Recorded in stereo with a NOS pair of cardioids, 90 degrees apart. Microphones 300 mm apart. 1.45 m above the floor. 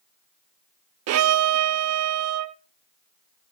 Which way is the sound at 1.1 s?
60° right.